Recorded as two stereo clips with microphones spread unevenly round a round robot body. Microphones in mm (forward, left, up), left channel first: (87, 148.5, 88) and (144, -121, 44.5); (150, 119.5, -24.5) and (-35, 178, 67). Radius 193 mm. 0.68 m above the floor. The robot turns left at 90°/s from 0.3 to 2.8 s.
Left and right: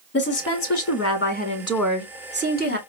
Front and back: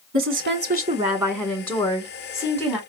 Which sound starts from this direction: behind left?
A woman speaking, at 0.1 s.